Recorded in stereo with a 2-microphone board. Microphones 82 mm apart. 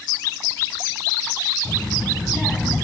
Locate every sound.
1.6 s a child speaking: 5° left (ahead or behind), 1.5 m; by 2.8 s centre (ahead or behind), 1.0 m